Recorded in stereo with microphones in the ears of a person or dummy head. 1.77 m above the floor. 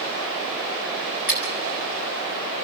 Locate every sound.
1.3 s scissors: 10° right (ahead or behind), 7.5 m